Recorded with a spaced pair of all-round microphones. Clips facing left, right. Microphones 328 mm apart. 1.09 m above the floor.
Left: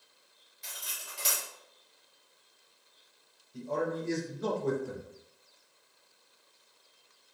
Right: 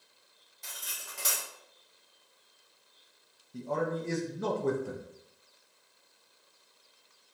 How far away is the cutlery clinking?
About 0.9 m.